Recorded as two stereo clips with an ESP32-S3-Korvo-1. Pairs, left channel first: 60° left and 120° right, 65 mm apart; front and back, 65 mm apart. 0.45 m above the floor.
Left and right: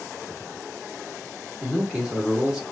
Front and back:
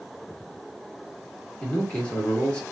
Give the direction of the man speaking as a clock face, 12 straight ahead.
2 o'clock.